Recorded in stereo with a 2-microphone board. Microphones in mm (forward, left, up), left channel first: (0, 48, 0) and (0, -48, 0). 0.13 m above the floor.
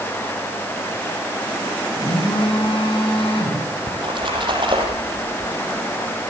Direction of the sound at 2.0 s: 65° left (ahead or behind).